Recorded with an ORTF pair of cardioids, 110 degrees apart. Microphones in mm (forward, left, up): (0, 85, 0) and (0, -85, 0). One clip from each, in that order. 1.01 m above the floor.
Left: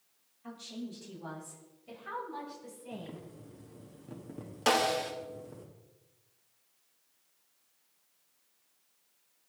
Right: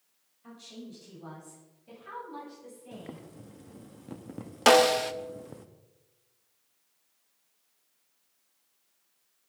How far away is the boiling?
About 1.2 m.